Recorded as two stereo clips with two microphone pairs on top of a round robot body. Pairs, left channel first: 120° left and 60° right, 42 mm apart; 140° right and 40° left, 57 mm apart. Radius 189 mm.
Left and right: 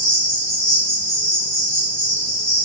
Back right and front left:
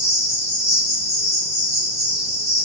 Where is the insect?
95° left, 0.8 m.